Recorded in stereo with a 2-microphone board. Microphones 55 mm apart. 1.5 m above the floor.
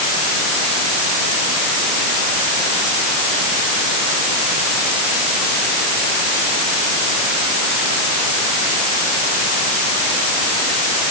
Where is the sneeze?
No sneeze in this recording.